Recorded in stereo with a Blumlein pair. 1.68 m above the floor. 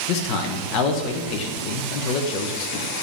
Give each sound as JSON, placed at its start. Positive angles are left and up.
{"t": 0.1, "sound": "a man speaking", "azimuth_deg": 40, "distance_m": 2.0}